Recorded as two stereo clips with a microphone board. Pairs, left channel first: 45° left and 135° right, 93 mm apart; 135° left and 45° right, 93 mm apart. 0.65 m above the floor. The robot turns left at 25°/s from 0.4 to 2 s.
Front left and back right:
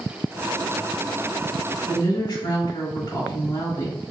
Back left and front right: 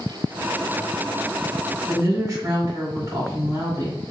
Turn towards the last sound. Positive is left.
turn(degrees=0)